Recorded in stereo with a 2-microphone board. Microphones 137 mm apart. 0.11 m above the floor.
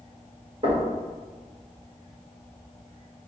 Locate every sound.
0.6 s knocking: 45° right (ahead or behind), 1.7 m